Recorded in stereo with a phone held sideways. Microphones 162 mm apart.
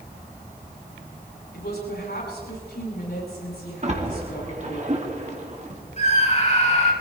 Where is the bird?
No bird in this recording.